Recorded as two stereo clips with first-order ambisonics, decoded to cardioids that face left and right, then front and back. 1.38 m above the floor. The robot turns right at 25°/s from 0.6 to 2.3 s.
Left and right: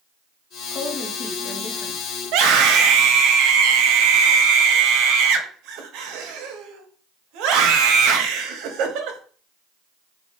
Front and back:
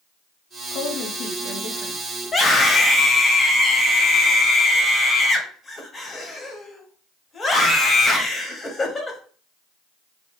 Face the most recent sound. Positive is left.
turn(degrees=-75)